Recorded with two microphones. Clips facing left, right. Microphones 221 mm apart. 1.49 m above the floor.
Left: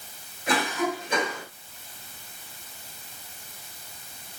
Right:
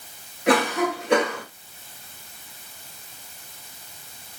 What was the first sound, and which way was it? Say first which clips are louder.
A cough: right 6 dB; 70° right (ahead or behind).